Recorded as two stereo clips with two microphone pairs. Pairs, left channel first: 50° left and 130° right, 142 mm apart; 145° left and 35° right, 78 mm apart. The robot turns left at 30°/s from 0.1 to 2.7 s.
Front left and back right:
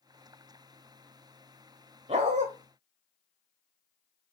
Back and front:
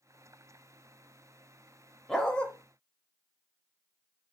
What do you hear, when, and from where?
2.1 s a dog barking: 130° right, 0.8 m; by 2.5 s 140° right, 0.8 m